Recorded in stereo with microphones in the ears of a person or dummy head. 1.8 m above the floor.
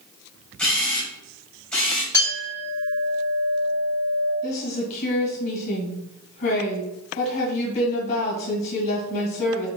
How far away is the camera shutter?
About 1.2 m.